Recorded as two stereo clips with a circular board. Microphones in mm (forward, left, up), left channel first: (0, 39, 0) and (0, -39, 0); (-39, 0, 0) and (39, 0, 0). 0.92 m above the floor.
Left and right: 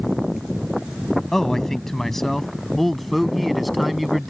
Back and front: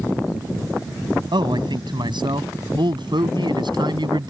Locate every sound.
1.3 s a man speaking: 5° left; by 4.3 s straight ahead